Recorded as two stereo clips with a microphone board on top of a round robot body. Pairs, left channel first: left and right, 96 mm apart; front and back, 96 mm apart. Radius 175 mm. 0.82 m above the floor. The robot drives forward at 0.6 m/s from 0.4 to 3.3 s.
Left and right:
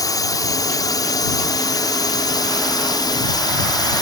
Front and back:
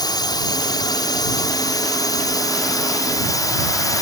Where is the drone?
40° left; by 4.0 s 45° left.